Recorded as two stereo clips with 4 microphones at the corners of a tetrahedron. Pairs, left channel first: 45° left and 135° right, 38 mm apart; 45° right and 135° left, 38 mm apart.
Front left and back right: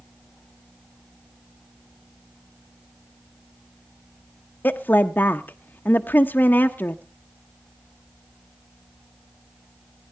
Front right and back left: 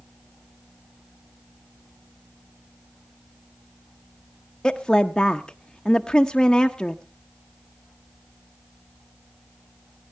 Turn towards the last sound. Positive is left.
turn(degrees=25)